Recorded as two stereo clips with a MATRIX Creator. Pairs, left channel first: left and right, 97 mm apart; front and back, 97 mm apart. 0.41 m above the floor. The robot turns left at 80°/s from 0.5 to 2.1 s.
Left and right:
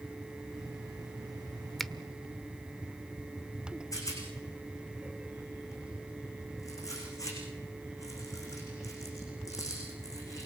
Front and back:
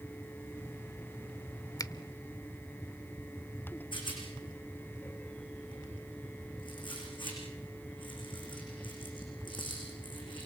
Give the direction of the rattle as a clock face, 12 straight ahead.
11 o'clock.